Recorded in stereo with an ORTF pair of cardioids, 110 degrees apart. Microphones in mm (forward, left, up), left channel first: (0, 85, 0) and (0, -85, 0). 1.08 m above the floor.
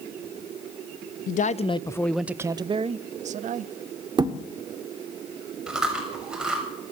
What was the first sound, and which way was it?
A man speaking, 55° left.